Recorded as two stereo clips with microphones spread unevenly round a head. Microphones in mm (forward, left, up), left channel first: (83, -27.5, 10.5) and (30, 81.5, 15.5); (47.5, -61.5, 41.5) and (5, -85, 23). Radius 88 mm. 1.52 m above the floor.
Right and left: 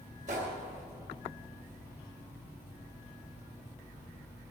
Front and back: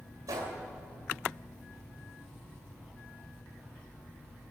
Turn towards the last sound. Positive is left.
turn(degrees=165)